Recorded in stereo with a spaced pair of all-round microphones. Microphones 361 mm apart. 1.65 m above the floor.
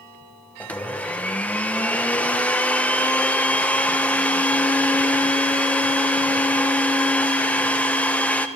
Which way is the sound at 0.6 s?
5° left (ahead or behind).